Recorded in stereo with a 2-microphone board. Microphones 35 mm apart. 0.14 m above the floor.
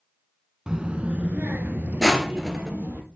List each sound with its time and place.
0.7 s a child speaking: 20° right (ahead or behind), 0.8 m; by 3.0 s 70° right (ahead or behind), 2.5 m
2.0 s crushing: 5° right (ahead or behind), 1.4 m